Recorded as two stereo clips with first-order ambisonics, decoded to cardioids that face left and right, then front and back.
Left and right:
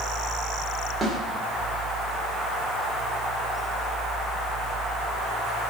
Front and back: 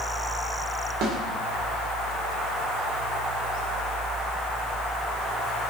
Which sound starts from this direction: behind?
A snare drum, at 1.0 s.